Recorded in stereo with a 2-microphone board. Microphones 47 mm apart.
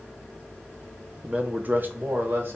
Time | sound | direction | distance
1.2 | a man speaking | 25° right (ahead or behind) | 0.6 m